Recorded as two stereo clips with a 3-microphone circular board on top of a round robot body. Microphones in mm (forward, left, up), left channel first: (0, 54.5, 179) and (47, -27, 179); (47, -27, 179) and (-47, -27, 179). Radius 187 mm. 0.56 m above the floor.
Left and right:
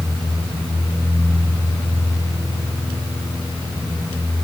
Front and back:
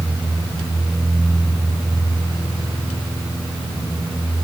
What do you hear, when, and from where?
Only background noise.